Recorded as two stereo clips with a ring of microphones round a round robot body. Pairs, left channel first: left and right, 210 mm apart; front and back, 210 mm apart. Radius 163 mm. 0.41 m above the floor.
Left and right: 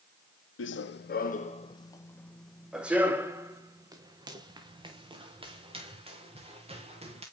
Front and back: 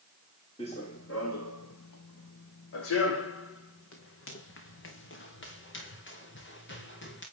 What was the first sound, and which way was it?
Running footsteps, 75° left.